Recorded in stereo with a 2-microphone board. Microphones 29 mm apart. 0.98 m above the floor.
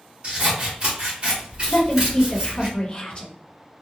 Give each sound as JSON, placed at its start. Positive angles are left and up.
{"t": 0.2, "sound": "scissors", "side_deg": -40, "distance_m": 1.3}
{"t": 1.7, "sound": "a woman speaking", "side_deg": 35, "distance_m": 1.0}